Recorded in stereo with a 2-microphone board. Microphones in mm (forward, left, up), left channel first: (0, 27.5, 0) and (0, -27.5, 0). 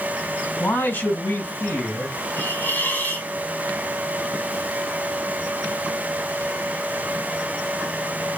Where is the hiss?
35° left (ahead or behind), 2 m.